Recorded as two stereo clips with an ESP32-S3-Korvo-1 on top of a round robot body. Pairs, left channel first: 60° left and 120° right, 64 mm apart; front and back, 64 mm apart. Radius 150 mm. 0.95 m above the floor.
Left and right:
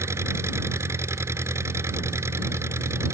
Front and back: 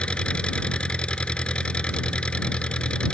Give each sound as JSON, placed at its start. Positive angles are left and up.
{"t": 0.0, "sound": "an engine running", "azimuth_deg": -75}